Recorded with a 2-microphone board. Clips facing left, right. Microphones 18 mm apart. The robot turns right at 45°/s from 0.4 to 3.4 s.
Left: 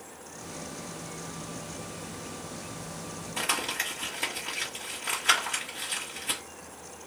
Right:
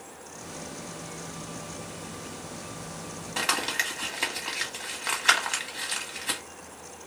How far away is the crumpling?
About 1.9 m.